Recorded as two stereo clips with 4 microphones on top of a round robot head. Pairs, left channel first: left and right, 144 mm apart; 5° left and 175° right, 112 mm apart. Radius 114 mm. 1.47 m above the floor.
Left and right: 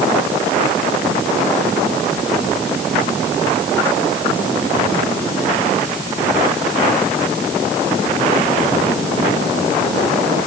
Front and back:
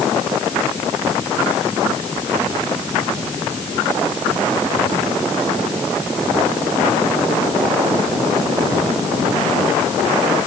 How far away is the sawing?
I don't hear sawing.